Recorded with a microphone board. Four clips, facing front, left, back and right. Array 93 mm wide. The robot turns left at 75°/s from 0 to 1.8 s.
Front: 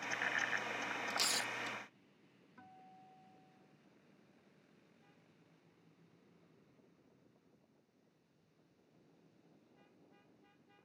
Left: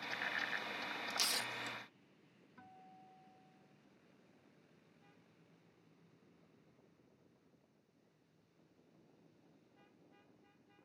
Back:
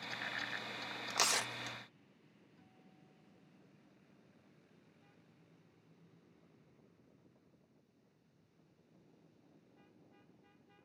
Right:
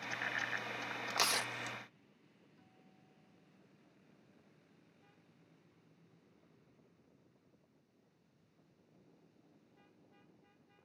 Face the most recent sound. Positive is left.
turn(degrees=40)